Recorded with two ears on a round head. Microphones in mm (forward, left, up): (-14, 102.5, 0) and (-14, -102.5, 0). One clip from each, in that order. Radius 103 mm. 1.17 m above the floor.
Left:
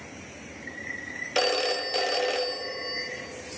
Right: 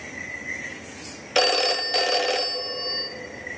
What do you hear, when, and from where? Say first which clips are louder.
1.4 s a phone ringing: right 5 dB; 10° right (ahead or behind), 0.5 m